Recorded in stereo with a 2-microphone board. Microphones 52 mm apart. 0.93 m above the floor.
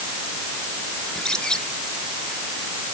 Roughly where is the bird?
Centre.